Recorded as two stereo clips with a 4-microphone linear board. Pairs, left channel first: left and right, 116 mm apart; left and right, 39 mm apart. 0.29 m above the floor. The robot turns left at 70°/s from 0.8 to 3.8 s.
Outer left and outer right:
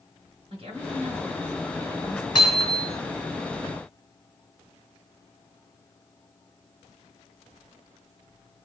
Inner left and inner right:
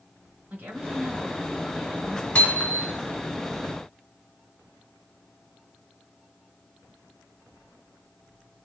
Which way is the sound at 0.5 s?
120° right.